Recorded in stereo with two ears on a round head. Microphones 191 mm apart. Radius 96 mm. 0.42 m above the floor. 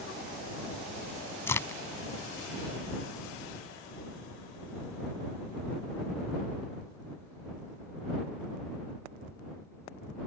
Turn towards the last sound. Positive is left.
turn(degrees=10)  # may be behind; listen again after turning